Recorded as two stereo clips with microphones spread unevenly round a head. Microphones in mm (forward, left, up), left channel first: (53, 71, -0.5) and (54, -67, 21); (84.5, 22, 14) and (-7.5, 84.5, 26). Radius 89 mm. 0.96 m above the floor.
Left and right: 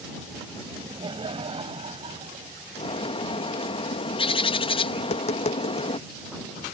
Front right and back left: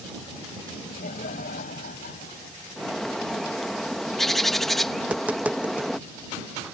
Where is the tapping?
65° left.